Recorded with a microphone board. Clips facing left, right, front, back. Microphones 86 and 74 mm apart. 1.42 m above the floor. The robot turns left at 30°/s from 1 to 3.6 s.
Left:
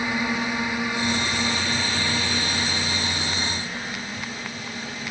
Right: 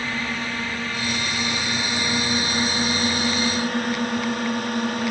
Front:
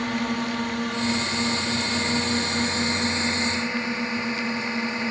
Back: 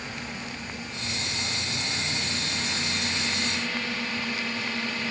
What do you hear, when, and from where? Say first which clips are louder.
0.0 s a drone: left 2 dB, front 11 dB; 15° left; by 5.1 s 65° right